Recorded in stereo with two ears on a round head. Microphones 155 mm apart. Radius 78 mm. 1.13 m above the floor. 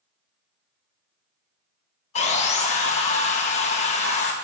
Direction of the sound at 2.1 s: 40° left (ahead or behind).